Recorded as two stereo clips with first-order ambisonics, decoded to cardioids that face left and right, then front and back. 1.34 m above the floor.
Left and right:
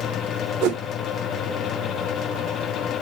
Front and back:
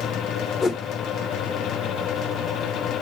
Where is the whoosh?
70° right, 0.6 m.